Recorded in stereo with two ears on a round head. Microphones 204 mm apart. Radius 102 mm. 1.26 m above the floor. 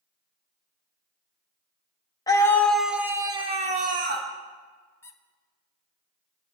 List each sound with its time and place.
2.3 s a scream: 15° left (ahead or behind), 1.5 m; by 4.3 s 45° right (ahead or behind), 1.7 m
5.0 s a squeak: 10° left (ahead or behind), 0.9 m